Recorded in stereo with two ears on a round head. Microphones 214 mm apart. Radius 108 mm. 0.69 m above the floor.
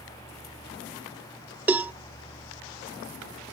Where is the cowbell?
5° right (ahead or behind).